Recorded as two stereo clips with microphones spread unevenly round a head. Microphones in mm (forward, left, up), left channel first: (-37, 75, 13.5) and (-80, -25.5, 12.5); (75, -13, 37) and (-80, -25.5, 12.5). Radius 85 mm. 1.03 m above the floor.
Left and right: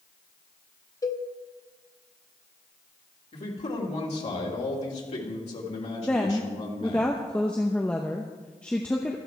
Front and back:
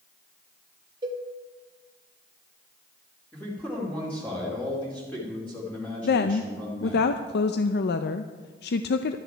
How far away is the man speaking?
About 2.5 m.